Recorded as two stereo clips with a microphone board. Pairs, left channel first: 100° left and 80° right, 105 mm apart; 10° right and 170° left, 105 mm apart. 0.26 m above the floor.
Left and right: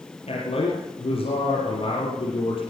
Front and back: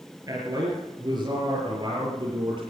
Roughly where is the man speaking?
Behind left.